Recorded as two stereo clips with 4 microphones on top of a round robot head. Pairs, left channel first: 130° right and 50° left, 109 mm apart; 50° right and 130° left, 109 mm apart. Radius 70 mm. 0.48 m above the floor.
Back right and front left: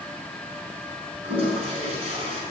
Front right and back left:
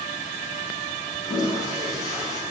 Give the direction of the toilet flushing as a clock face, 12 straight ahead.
12 o'clock.